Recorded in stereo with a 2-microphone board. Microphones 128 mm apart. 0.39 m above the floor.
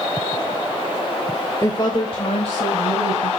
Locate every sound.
1.6 s a woman speaking: 20° left (ahead or behind), 0.9 m; by 3.3 s 60° left (ahead or behind), 2.5 m